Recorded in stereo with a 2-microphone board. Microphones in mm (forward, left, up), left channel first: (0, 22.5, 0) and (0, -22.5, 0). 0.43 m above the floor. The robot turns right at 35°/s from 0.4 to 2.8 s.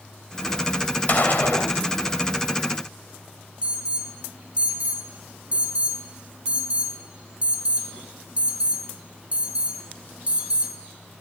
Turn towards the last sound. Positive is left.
turn(degrees=-25)  # may be behind; listen again after turning